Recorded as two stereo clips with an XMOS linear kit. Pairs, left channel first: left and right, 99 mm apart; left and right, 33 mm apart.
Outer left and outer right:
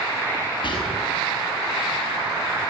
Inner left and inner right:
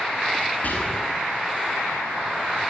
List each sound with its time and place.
0.6 s whispering: 60° left (ahead or behind), 5 m